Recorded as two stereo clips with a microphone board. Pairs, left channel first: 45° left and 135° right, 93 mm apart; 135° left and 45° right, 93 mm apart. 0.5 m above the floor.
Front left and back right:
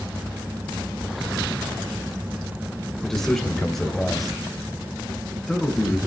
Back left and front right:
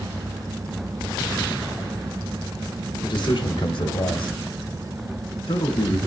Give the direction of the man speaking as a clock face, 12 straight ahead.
8 o'clock.